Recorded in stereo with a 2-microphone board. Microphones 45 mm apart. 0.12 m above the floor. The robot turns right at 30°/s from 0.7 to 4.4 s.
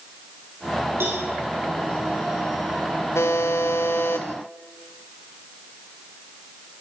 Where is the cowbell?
65° right (ahead or behind), 9 m; by 1.2 s 70° right (ahead or behind), 9 m.